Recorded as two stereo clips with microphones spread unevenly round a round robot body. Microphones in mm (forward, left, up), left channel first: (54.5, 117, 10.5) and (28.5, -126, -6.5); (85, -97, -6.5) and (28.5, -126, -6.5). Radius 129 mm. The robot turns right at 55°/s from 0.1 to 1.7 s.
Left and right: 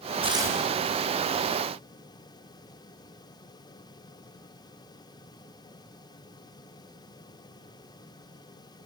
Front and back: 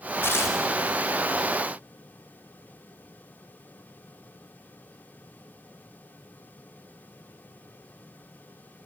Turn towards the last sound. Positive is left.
turn(degrees=50)